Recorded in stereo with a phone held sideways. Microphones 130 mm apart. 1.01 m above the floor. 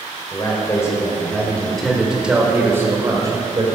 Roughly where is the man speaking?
Left.